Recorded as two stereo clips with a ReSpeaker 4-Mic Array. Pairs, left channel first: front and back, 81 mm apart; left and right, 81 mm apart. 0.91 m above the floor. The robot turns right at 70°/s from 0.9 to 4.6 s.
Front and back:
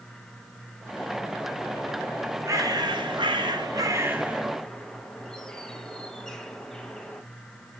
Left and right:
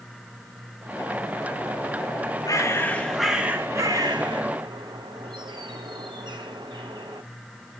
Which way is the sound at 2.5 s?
130° left.